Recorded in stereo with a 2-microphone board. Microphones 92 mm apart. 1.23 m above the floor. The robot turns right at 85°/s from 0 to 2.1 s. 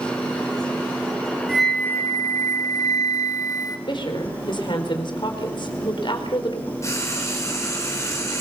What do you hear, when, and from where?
1.5 s a flute: 5° right, 1.5 m; by 3.8 s 45° left, 1.5 m
3.9 s a woman speaking: 60° left (ahead or behind), 3.5 m
6.8 s frying: 30° left (ahead or behind), 4.5 m